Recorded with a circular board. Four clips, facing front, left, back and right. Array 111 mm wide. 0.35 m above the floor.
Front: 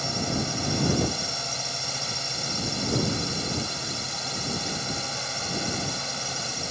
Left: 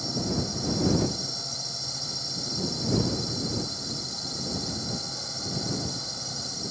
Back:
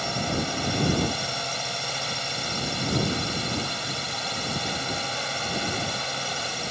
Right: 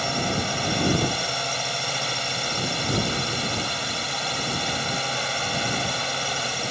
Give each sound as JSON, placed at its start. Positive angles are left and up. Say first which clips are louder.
{"t": 0.0, "sound": "a drone", "louder": "right 4 dB, back 1 dB", "azimuth_deg": -110}